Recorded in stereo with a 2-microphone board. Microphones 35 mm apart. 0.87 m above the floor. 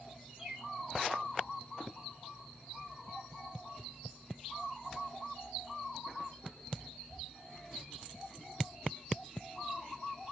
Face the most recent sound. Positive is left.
turn(degrees=-25)  # may be behind; listen again after turning